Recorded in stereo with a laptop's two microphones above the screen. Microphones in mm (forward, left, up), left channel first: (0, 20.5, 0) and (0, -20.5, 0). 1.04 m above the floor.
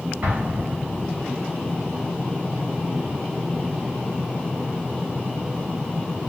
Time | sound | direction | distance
0.2 | an explosion | 55° right (ahead or behind) | 1.4 m